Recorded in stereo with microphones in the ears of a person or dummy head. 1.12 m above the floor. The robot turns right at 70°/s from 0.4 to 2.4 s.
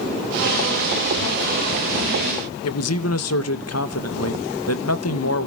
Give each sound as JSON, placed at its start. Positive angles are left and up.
{"t": 2.6, "sound": "a man speaking", "side_deg": 75, "distance_m": 1.0}